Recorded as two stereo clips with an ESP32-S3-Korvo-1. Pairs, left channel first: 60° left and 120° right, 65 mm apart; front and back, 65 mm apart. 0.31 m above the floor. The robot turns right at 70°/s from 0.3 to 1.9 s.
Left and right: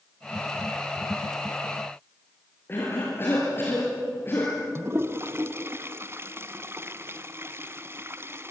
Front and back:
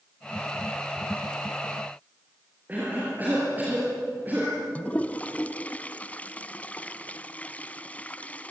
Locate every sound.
2.7 s a cough: 115° left, 5.5 m
4.8 s a toilet flushing: 70° right, 0.9 m